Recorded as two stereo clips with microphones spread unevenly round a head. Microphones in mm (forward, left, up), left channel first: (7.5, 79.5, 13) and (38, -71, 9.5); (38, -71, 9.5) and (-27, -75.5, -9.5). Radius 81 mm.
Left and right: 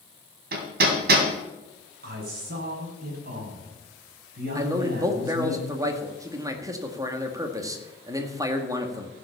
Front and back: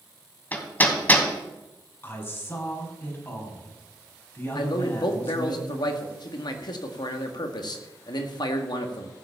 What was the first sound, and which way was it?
Hammering, 55° right.